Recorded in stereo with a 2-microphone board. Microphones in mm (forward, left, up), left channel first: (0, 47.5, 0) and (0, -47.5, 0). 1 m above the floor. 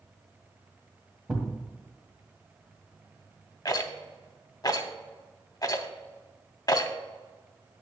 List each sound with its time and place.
1.3 s a thud: 5° right (ahead or behind), 1.6 m
3.6 s a rattle: 40° left (ahead or behind), 0.8 m